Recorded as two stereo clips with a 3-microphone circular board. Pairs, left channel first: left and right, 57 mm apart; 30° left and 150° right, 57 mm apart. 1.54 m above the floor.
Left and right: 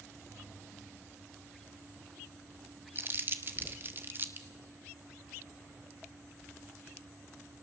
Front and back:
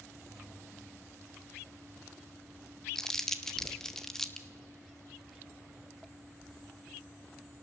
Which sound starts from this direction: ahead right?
Crumpling, at 3.0 s.